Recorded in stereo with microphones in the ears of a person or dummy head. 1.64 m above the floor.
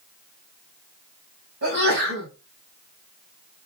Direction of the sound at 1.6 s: 60° right (ahead or behind).